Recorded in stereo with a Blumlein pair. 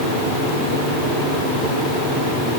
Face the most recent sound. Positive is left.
No sound to turn to.